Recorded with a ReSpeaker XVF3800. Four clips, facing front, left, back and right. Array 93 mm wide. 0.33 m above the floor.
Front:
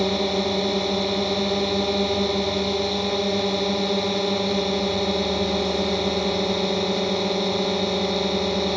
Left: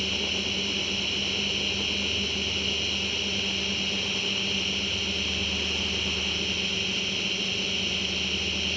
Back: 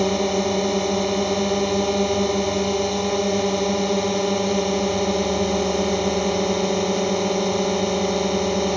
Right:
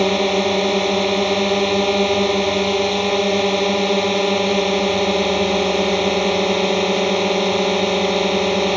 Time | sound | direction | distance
0.0 | a drone | 100° right | ?